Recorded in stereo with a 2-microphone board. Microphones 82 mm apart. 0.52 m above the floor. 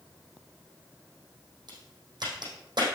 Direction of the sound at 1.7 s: 60° right (ahead or behind).